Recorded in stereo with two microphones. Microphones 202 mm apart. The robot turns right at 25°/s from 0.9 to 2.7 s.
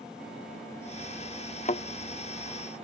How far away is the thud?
About 0.5 m.